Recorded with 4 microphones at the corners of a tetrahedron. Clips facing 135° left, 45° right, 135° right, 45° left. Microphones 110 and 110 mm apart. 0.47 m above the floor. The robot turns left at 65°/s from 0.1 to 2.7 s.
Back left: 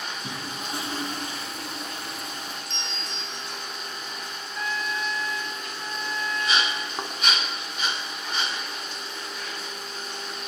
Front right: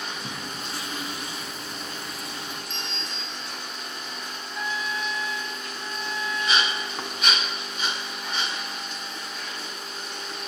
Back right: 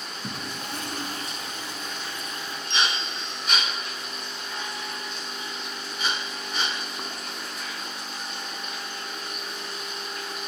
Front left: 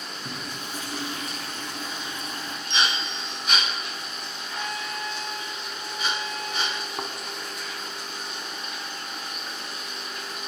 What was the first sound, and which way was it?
A toilet flushing, 125° right.